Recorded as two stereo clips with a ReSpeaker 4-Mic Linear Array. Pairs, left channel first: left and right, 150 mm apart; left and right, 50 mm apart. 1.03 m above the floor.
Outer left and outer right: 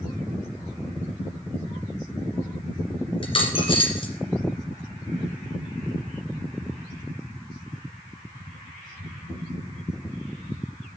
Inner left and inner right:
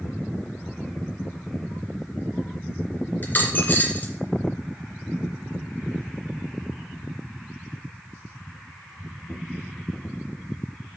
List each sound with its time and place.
3.2 s a dropped coin: 35° left (ahead or behind), 2.5 m